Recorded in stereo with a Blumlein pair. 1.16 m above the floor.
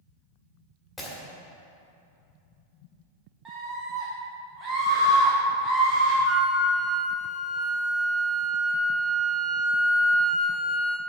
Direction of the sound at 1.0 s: 10° left.